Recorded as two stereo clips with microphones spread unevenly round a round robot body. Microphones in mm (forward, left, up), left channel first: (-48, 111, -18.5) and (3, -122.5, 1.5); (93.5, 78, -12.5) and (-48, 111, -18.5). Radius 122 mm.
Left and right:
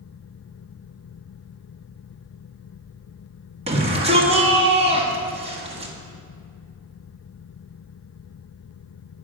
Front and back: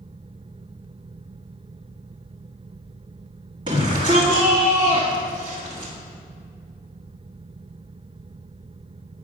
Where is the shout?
140° right, 1.5 m.